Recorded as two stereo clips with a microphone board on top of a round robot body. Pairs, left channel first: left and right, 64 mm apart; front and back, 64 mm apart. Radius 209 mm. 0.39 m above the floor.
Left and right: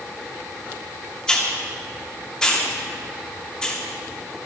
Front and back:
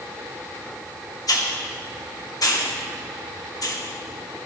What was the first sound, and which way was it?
A hiss, 10° left.